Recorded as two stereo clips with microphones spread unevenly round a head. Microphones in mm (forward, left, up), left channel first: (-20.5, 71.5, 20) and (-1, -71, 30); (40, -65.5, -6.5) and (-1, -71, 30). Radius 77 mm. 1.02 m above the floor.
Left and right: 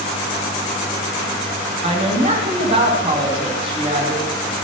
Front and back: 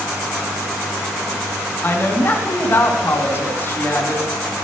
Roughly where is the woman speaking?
Ahead right.